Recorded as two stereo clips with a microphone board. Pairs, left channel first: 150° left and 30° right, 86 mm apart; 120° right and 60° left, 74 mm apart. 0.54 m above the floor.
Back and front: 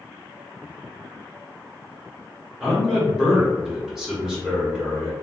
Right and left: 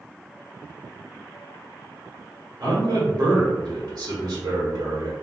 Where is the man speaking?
55° left, 1.5 m.